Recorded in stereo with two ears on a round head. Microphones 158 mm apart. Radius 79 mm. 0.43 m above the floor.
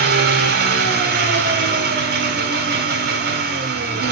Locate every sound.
0.0 s an engine running: 60° right (ahead or behind), 2.5 m